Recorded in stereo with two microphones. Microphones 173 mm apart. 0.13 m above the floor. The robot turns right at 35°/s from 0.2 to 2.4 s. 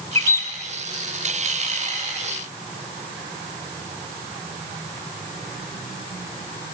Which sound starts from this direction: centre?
A bird, at 0.1 s.